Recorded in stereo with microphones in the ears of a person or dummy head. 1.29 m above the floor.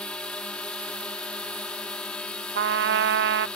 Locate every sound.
0.0 s a drone: 5° left (ahead or behind)
2.5 s a trumpet: 55° right (ahead or behind)